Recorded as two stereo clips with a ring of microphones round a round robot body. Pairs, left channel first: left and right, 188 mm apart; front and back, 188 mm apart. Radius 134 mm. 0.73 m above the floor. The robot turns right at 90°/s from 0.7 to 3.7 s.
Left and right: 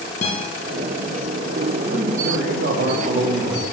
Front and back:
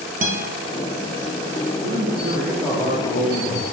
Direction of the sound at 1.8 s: 160° right.